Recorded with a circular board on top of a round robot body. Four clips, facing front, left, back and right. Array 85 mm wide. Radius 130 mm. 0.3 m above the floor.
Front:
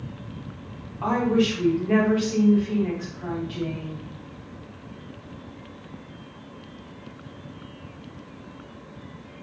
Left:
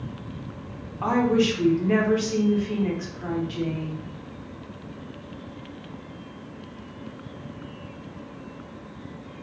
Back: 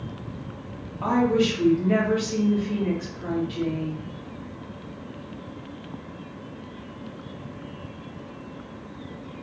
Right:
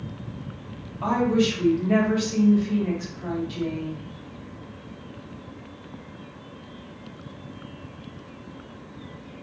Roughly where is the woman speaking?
Left.